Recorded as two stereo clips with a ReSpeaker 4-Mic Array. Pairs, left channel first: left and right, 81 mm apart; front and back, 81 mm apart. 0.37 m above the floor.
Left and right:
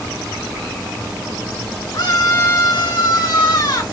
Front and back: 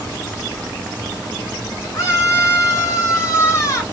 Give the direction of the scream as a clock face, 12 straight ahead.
10 o'clock.